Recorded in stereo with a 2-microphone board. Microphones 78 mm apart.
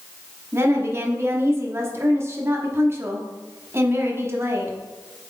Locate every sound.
0.5 s a woman speaking: 35° right (ahead or behind), 1.2 m